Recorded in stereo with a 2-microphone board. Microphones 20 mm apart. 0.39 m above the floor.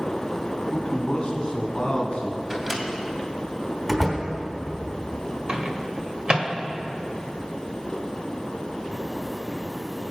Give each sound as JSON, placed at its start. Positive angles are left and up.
{"t": 0.7, "sound": "a man speaking", "side_deg": 35, "distance_m": 2.0}
{"t": 2.5, "sound": "a microwave", "side_deg": -20, "distance_m": 2.5}
{"t": 3.9, "sound": "a door slam", "side_deg": -5, "distance_m": 3.0}
{"t": 5.5, "sound": "a microwave", "side_deg": -50, "distance_m": 1.5}